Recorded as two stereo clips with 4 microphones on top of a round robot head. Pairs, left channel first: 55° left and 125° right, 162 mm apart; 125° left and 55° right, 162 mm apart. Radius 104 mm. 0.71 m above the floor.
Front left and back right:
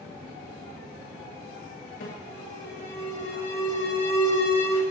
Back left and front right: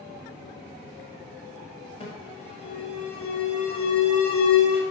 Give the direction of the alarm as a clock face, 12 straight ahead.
10 o'clock.